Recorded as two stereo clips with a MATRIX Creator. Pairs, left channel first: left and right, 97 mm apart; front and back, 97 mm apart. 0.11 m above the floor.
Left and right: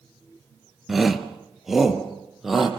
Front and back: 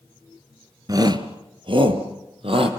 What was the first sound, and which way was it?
A shout, 175° right.